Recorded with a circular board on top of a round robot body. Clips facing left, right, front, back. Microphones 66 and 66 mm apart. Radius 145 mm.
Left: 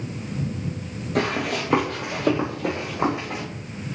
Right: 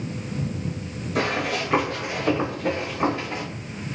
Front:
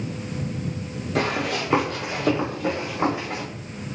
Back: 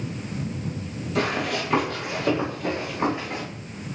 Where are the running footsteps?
50° left, 0.8 m; by 3.4 s 75° left, 2 m.